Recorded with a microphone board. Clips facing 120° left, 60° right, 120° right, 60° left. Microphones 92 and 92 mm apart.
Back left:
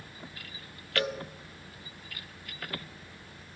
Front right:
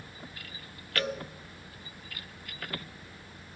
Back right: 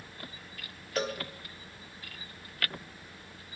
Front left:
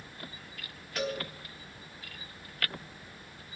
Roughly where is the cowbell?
Behind.